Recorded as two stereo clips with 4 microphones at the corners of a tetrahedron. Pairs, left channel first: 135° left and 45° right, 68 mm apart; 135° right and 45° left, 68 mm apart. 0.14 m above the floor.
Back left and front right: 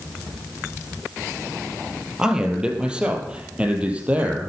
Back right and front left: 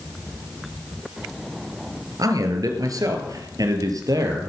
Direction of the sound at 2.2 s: 35° left.